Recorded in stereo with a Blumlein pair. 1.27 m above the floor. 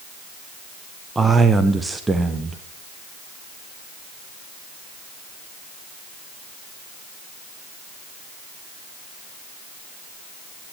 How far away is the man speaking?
About 0.5 m.